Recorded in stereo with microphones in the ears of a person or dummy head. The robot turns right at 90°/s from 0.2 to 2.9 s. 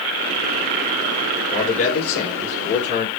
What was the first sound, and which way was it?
A man speaking, 15° left.